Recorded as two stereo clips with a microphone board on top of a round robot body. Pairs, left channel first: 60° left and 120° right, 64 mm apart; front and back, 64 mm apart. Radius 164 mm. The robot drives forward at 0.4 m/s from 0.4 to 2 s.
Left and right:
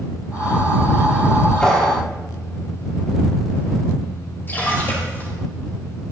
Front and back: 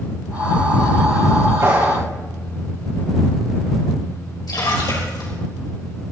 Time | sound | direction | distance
1.6 | a clap | 135° left | 6 m
4.5 | a splash | straight ahead | 4.5 m